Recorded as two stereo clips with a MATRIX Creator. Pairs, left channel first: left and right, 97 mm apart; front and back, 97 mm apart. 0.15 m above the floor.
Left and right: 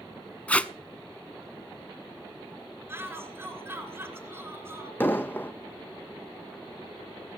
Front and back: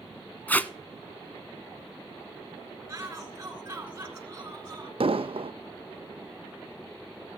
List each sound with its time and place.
0.5 s tape being pulled: 40° left, 0.5 m
2.9 s a shout: 140° right, 2 m
5.0 s an explosion: 160° left, 1.1 m